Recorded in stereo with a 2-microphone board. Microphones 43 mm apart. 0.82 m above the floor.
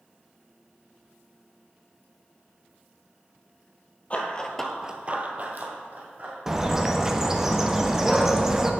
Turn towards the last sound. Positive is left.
turn(degrees=-15)  # may be behind; listen again after turning